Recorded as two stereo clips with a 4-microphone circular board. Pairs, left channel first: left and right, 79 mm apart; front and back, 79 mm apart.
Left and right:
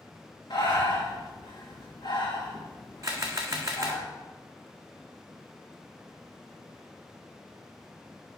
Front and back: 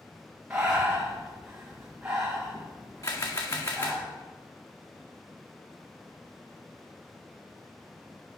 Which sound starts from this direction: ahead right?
A camera shutter, at 3.0 s.